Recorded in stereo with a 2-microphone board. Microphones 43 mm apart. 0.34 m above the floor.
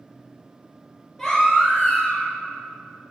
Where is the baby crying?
15° left (ahead or behind), 4.5 m.